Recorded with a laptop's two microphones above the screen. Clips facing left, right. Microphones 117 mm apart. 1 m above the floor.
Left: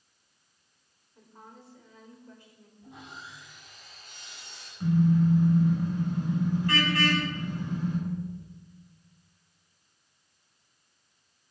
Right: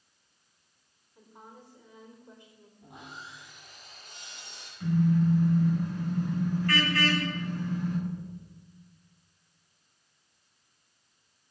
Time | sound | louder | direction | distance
1.1 | a woman speaking | even | 10° right (ahead or behind) | 3 m
2.8 | sawing | even | 65° right (ahead or behind) | 9.5 m
4.8 | a car horn | left 2 dB | 20° left (ahead or behind) | 5.5 m